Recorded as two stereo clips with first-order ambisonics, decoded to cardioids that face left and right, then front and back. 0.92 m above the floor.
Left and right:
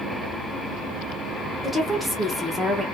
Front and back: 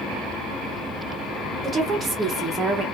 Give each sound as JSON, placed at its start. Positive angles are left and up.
{"t": 1.6, "sound": "a woman speaking", "azimuth_deg": -170, "distance_m": 0.8}